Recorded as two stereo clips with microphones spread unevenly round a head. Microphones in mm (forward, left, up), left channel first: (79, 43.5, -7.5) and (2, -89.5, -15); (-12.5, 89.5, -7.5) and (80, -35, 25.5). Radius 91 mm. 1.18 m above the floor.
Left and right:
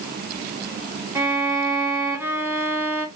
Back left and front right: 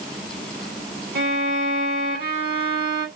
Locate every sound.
1.1 s a violin: 55° right, 0.9 m